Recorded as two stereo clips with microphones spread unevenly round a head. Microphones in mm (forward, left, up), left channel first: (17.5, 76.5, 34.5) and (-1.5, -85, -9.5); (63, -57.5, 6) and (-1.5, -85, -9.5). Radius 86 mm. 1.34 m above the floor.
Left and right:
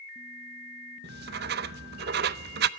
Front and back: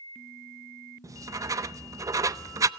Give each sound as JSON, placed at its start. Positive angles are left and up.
{"t": 1.0, "sound": "writing", "azimuth_deg": -120, "distance_m": 0.6}